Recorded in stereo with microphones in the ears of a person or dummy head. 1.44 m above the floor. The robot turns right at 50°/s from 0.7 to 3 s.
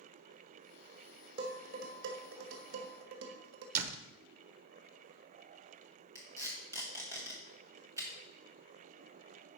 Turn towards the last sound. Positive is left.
turn(degrees=-15)  # may be behind; listen again after turning